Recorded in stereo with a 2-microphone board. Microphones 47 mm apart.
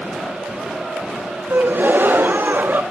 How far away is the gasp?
About 0.6 m.